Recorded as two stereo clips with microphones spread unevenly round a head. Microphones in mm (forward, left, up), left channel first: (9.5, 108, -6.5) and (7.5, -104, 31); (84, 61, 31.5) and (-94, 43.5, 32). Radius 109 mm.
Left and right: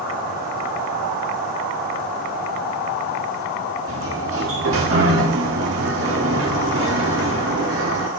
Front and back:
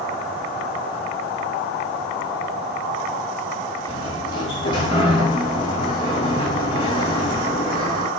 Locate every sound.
3.9 s a sliding door: 65° right, 2.5 m